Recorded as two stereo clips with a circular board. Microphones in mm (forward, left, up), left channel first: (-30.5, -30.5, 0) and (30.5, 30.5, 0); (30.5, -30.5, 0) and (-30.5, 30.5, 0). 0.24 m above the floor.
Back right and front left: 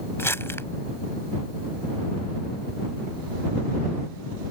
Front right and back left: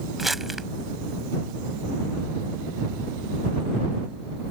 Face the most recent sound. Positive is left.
turn(degrees=-140)